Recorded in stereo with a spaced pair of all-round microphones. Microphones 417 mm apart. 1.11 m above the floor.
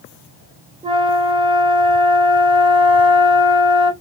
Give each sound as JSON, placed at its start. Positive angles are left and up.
{"t": 0.8, "sound": "a flute", "side_deg": -10, "distance_m": 0.6}